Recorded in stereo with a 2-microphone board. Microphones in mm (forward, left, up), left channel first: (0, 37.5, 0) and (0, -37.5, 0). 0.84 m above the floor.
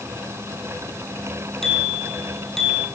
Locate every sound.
1.6 s a bicycle bell: 5° left (ahead or behind), 6.5 m